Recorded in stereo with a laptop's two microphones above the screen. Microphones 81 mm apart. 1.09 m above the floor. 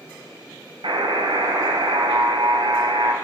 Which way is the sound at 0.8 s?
75° right (ahead or behind).